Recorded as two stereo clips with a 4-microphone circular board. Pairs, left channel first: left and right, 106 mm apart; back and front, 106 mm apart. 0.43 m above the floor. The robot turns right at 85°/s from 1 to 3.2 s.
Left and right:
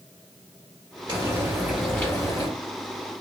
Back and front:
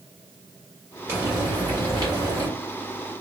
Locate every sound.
1.1 s frying: 60° right, 1.9 m; by 2.5 s 55° left, 1.9 m